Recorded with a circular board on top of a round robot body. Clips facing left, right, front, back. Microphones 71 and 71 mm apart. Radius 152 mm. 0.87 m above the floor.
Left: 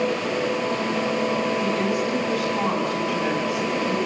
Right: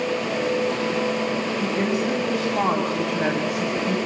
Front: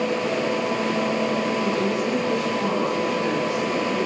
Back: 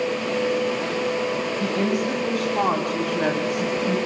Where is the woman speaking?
150° right, 6.5 m; by 4.0 s 135° right, 6 m.